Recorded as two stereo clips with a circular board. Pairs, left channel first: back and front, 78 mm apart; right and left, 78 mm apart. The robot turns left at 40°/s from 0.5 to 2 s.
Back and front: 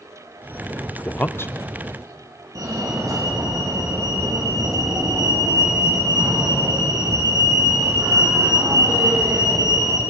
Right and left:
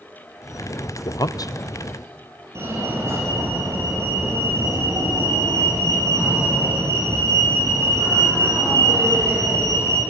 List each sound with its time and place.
1.1 s a man speaking: 110° right, 0.8 m; by 1.5 s 130° right, 0.8 m
2.5 s a fire alarm: 40° left, 4 m